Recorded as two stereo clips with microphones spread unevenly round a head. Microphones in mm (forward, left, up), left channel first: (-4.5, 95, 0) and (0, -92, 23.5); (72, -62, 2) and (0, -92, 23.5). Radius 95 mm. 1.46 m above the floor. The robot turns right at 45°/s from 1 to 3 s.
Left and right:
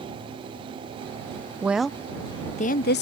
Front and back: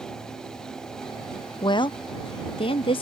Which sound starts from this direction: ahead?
A woman speaking, at 1.6 s.